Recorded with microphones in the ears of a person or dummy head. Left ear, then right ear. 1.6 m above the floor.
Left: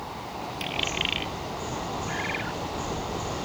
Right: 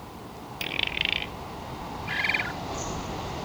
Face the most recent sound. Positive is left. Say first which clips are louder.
# right 7 dB
turn(degrees=-30)  # may be behind; listen again after turning